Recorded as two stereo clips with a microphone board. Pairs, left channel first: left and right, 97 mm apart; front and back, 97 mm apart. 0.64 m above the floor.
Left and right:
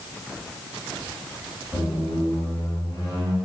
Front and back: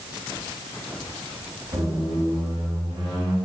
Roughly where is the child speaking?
I don't hear a child speaking.